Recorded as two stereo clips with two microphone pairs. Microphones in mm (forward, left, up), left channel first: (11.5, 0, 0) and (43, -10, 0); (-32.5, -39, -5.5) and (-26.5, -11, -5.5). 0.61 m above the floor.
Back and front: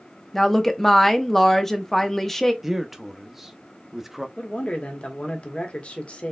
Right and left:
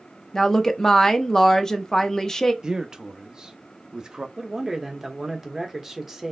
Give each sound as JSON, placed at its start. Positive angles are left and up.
{"t": 0.3, "sound": "a woman speaking", "azimuth_deg": -130, "distance_m": 0.5}
{"t": 2.6, "sound": "a man speaking", "azimuth_deg": 50, "distance_m": 0.6}
{"t": 4.4, "sound": "a man speaking", "azimuth_deg": 150, "distance_m": 1.1}